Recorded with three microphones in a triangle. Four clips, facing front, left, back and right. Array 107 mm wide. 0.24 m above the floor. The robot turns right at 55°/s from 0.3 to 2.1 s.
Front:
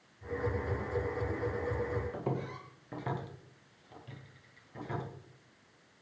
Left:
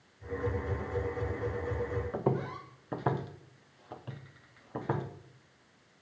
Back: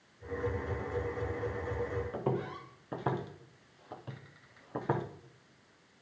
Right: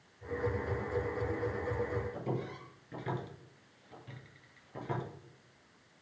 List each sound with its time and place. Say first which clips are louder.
2.1 s footsteps: left 6 dB, back 2 dB; 95° left, 2.5 m; by 5.0 s 150° left, 2.5 m